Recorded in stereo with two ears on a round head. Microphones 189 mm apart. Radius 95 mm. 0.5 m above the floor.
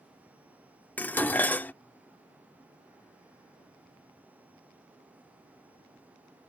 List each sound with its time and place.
1.0 s dishes clattering: 10° left (ahead or behind)